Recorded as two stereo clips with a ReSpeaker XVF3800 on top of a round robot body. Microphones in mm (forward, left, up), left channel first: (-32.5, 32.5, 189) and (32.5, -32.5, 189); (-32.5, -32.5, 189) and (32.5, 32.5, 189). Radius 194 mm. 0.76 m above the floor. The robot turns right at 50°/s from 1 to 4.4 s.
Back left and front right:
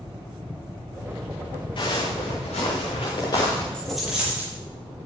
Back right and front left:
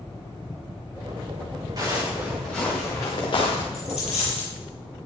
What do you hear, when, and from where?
1.8 s footsteps: 100° left, 8.5 m; by 3.6 s 155° right, 6 m
3.7 s a dropped coin: 145° right, 7 m; by 4.5 s 110° right, 7 m